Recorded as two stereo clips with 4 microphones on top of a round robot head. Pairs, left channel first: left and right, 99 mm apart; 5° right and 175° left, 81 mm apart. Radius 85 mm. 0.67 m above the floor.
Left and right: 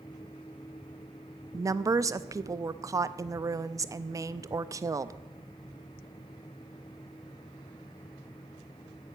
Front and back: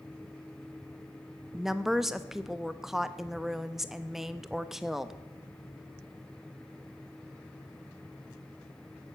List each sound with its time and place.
1.5 s a woman speaking: 105° right, 0.6 m